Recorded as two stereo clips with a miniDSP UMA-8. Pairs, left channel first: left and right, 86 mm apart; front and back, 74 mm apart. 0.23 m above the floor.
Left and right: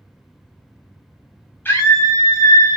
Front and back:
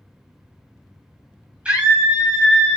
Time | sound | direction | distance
1.6 | a scream | 120° left | 1.7 m